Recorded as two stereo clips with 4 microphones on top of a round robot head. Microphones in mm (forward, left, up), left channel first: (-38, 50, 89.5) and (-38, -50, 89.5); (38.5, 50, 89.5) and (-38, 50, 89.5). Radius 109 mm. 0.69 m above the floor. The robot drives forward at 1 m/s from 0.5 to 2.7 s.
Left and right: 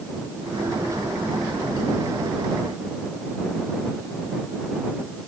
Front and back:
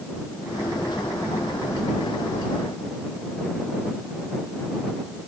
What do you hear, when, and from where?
Only background noise.